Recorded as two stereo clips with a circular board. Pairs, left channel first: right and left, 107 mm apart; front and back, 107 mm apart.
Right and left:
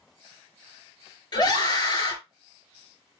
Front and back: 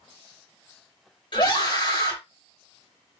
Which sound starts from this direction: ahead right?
A scream, at 1.3 s.